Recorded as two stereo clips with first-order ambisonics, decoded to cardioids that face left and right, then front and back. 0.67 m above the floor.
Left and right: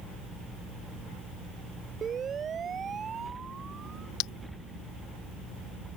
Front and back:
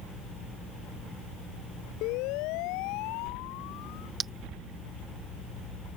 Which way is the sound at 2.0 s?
25° right.